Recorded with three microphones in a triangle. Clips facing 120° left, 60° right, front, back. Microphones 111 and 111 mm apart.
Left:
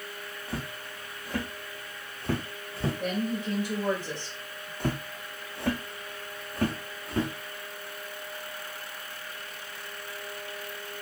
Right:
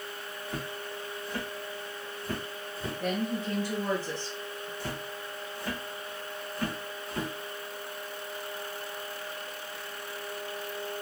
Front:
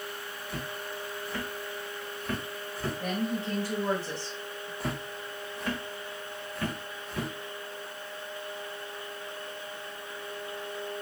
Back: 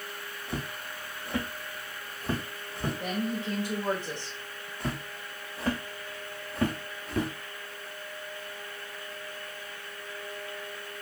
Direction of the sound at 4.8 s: 85° left.